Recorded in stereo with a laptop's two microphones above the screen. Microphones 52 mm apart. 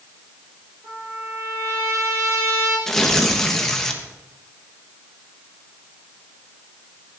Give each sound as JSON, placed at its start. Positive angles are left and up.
{"t": 0.8, "sound": "a trumpet", "side_deg": -65, "distance_m": 6.5}
{"t": 2.9, "sound": "tearing paper", "side_deg": 5, "distance_m": 1.2}